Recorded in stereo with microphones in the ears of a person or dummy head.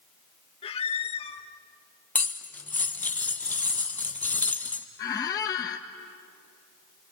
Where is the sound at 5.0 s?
20° left (ahead or behind), 0.8 m.